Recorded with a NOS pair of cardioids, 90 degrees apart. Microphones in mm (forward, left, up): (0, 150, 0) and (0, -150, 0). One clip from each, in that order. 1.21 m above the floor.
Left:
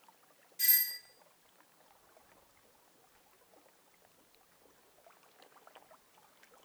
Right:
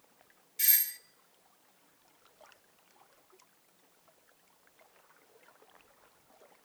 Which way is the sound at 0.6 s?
35° right.